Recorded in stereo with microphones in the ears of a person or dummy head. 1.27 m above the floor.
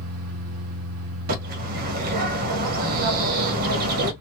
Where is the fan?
75° right (ahead or behind), 0.9 m.